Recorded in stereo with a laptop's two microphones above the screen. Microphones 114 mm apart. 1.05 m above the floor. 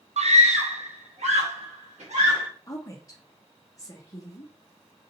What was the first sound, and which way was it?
A scream, 70° right (ahead or behind).